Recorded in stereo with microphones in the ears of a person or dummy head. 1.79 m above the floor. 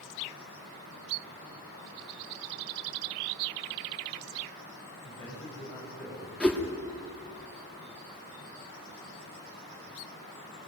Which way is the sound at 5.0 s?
10° left (ahead or behind).